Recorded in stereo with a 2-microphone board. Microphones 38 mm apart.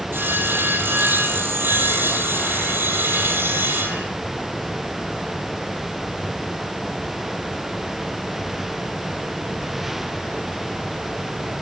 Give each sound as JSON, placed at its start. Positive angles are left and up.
{"t": 0.1, "sound": "sawing", "side_deg": -85, "distance_m": 4.5}